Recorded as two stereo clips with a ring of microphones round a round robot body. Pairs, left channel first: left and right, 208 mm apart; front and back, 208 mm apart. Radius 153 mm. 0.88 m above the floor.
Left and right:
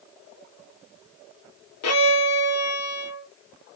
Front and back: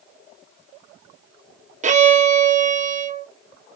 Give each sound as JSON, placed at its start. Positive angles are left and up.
{"t": 1.8, "sound": "a violin", "azimuth_deg": 125, "distance_m": 0.8}